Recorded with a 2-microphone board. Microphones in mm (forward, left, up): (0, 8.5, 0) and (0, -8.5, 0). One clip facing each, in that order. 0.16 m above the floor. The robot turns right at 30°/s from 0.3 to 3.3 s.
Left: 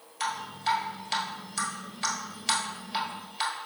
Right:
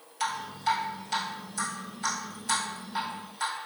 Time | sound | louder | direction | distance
0.2 | dripping | right 1 dB | 5° left (ahead or behind) | 1.3 m